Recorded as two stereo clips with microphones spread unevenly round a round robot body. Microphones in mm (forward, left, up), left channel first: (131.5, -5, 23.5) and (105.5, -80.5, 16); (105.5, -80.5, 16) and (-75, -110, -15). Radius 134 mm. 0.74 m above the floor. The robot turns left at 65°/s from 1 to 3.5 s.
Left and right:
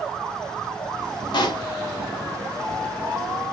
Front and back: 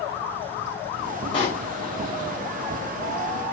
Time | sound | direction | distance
1.3 | a pop | 85° left | 1.0 m